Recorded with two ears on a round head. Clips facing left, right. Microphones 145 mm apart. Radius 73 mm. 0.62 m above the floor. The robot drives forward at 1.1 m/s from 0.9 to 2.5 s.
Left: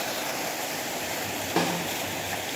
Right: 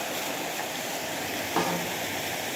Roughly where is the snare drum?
Centre.